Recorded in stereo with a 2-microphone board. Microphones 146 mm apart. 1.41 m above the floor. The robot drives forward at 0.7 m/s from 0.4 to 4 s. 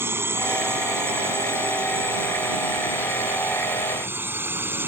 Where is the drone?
15° right (ahead or behind).